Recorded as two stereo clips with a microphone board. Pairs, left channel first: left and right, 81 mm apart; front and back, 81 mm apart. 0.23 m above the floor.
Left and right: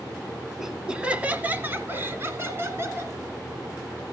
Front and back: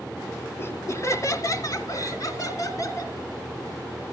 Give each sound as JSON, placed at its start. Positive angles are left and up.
{"t": 0.6, "sound": "laughter", "azimuth_deg": -5, "distance_m": 1.4}